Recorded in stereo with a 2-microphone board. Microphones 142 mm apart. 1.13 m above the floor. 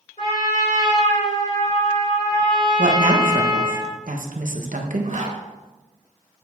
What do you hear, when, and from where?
0.2 s a trumpet: 65° left (ahead or behind), 4 m
2.8 s a woman speaking: 70° right (ahead or behind), 1.3 m
5.0 s a zipper: 60° right (ahead or behind), 1.5 m